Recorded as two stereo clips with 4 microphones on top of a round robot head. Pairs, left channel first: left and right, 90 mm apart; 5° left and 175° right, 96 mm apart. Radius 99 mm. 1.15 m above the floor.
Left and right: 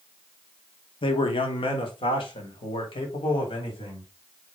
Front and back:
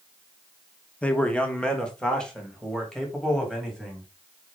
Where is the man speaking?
80° left, 1.2 m; by 4.1 s 90° left, 3.5 m.